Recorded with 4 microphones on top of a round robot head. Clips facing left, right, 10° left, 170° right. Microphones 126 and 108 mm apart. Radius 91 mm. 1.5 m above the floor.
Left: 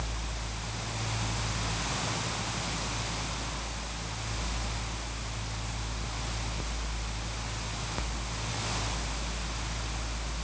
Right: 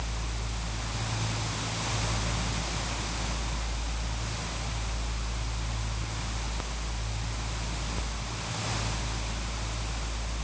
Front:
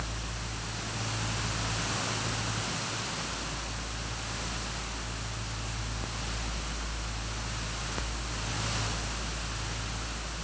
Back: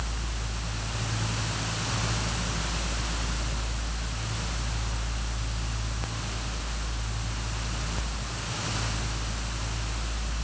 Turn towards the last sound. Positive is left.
No sound to turn to.